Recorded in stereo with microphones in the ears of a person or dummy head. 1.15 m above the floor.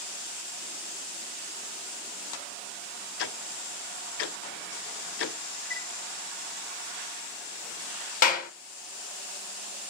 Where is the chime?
70° left (ahead or behind), 1.5 m.